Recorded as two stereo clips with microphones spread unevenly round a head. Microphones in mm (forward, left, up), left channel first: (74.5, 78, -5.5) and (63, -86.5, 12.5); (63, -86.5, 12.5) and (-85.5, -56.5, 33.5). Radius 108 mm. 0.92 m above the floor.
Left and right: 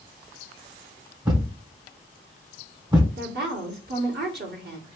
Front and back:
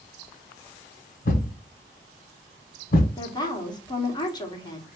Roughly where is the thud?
Ahead right.